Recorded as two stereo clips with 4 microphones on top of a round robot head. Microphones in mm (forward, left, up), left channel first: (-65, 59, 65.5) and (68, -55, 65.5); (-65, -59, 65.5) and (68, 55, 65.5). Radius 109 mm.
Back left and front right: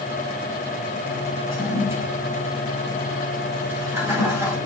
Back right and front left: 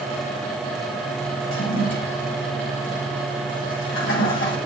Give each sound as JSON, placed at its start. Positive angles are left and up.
{"t": 1.5, "sound": "a toilet flushing", "azimuth_deg": -115, "distance_m": 2.5}